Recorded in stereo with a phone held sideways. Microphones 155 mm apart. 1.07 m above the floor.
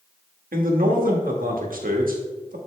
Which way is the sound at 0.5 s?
65° right (ahead or behind).